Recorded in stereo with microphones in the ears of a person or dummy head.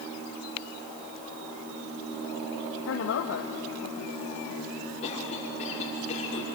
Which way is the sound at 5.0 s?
35° left (ahead or behind).